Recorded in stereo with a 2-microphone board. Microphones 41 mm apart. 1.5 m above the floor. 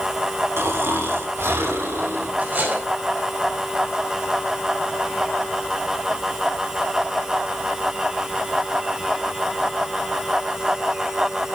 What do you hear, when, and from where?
0.6 s snoring: 70° right (ahead or behind), 3 m
2.4 s cutlery clinking: 45° right (ahead or behind), 4.5 m